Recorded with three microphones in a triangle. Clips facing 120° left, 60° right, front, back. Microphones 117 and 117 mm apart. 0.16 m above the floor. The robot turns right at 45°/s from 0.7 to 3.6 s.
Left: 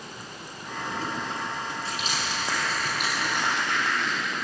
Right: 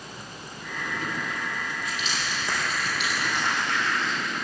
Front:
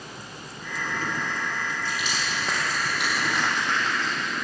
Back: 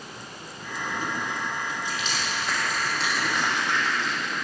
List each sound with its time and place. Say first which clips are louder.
1.9 s crushing: left 1 dB, even; 25° left, 4.5 m; by 4.4 s 105° left, 4.5 m